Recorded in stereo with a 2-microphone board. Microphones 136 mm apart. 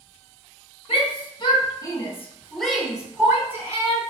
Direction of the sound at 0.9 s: 50° left (ahead or behind).